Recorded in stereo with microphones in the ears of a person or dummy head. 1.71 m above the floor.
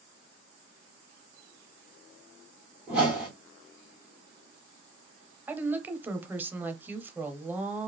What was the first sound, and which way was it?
A whoosh, 5° right (ahead or behind).